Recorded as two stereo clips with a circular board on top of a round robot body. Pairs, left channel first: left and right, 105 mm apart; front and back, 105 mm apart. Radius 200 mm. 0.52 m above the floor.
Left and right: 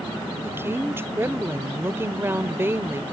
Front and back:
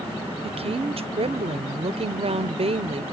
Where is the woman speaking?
160° right.